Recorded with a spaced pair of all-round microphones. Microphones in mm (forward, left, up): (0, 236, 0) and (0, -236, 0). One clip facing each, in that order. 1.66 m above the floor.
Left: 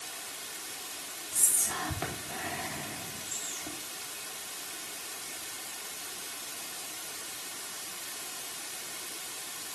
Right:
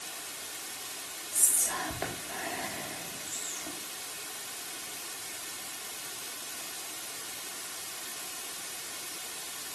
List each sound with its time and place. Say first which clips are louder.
1.3 s whispering: right 1 dB; 25° left (ahead or behind), 4 m